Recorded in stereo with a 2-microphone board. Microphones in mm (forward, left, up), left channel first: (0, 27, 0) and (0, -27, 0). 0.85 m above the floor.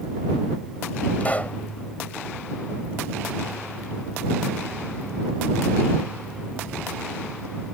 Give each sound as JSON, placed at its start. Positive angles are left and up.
{"t": 1.2, "sound": "a pop", "side_deg": 30}